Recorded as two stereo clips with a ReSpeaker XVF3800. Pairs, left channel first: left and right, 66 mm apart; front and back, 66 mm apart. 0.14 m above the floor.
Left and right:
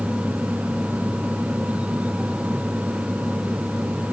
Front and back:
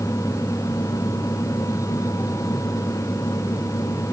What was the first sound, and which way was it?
Only background noise.